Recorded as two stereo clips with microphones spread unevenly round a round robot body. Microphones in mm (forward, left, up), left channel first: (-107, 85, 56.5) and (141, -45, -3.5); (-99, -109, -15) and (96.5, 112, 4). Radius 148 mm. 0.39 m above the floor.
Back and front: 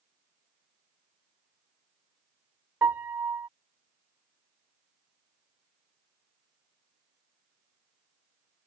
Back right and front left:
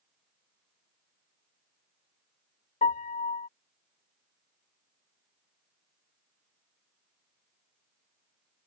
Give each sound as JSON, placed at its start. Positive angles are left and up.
{"t": 2.8, "sound": "a piano", "azimuth_deg": -90}